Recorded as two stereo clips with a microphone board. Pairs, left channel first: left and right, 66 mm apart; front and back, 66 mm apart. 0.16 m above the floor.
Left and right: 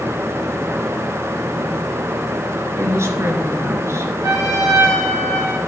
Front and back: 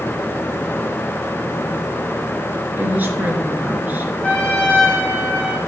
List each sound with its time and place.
2.8 s a woman speaking: 120° right, 2.5 m
4.2 s a trumpet: 70° right, 5 m